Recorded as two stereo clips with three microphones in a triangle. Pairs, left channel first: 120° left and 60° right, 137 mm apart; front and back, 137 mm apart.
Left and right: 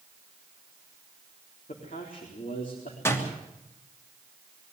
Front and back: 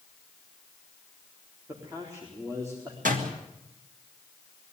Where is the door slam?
170° right, 3 m.